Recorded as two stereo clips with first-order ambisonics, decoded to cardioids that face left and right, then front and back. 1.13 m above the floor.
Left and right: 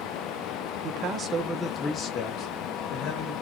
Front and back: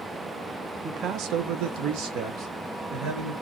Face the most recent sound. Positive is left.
turn(degrees=125)